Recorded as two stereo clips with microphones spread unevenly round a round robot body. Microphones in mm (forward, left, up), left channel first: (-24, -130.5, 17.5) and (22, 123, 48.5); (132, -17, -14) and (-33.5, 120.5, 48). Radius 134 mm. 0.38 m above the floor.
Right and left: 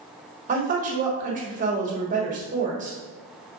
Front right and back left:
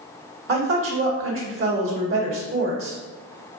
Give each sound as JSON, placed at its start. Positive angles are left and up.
{"t": 0.5, "sound": "a woman speaking", "azimuth_deg": 135, "distance_m": 1.5}